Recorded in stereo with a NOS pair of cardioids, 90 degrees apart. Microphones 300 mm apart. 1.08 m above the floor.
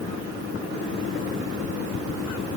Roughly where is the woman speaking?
I don't hear a woman speaking.